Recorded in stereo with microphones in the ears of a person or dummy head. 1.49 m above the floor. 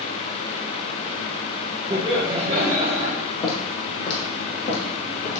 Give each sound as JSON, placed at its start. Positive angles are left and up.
{"t": 1.9, "sound": "laughter", "side_deg": -20, "distance_m": 1.4}
{"t": 3.4, "sound": "footsteps", "side_deg": 30, "distance_m": 3.0}